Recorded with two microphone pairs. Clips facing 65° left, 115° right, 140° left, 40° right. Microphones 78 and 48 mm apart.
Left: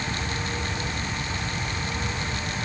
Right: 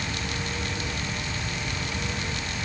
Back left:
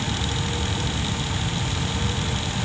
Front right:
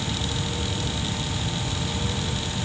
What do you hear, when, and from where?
Only background noise.